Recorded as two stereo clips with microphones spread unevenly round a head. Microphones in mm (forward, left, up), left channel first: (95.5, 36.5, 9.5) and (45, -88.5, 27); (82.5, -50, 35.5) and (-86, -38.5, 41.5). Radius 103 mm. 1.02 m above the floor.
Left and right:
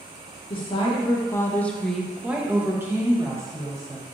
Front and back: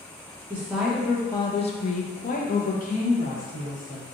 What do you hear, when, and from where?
0.5 s a woman speaking: 100° left, 0.6 m; by 4.0 s 40° right, 1.5 m